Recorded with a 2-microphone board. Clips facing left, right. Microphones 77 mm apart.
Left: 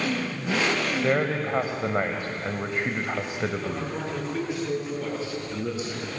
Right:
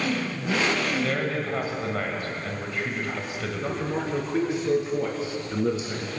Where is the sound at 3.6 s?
25° right (ahead or behind), 5.5 m.